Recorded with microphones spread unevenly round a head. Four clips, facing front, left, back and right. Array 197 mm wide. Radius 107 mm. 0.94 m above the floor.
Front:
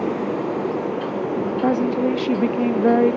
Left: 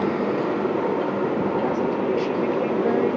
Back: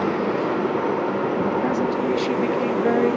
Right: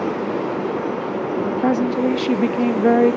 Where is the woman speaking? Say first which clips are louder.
Right 4 dB, front 2 dB; 60° right, 1.0 m.